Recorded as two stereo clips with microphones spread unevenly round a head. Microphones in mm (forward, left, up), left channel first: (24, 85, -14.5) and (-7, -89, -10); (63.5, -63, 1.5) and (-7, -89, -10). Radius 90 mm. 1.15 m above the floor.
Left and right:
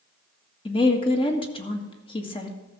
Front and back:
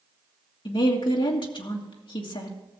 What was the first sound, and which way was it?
A woman speaking, 20° left.